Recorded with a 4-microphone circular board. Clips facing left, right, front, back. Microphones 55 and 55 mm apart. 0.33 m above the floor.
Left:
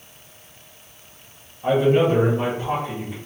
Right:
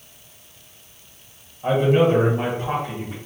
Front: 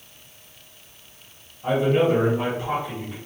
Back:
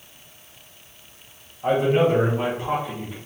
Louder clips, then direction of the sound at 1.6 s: Even, back 1 dB; 170° right.